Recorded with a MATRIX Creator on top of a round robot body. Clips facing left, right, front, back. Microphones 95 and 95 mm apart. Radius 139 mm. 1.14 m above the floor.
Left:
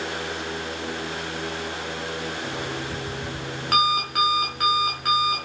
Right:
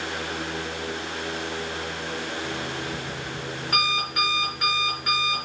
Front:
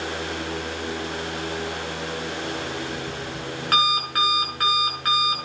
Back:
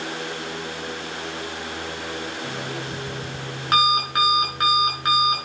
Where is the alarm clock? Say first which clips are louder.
Left 1 dB, front 1 dB; 110° left, 5.5 m.